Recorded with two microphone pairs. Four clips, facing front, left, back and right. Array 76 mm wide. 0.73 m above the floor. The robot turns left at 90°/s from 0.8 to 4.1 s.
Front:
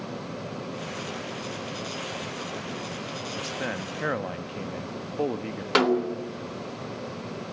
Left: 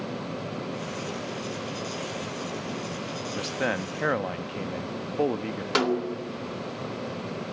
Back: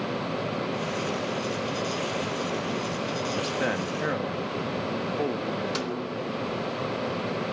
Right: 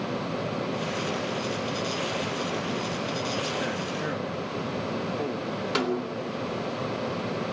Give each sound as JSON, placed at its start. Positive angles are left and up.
{"t": 3.4, "sound": "a man speaking", "azimuth_deg": 145, "distance_m": 1.0}
{"t": 5.8, "sound": "a snare drum", "azimuth_deg": 15, "distance_m": 1.9}